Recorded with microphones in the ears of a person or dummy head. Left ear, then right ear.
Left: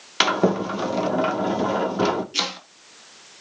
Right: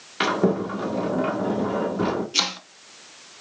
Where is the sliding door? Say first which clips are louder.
Left 2 dB; 55° left (ahead or behind), 1.6 m.